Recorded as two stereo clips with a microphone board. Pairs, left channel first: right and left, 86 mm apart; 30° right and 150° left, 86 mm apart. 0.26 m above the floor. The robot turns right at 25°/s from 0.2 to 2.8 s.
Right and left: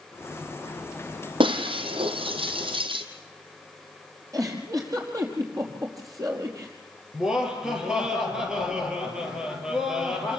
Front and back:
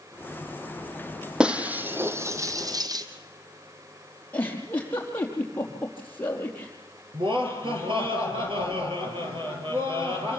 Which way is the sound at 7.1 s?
170° left.